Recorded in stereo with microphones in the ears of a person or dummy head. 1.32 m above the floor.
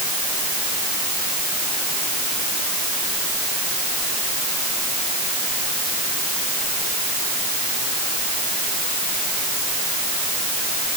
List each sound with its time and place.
Only background noise.